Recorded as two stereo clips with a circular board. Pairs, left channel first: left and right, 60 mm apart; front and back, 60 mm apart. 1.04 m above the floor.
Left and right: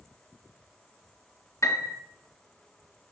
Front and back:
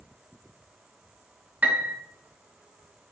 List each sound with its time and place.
1.6 s a piano: 120° left, 0.9 m